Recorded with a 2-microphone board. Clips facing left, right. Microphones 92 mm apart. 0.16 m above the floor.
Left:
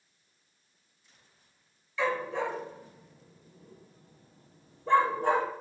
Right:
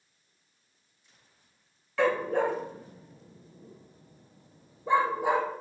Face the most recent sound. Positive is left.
turn(degrees=-5)  # may be behind; listen again after turning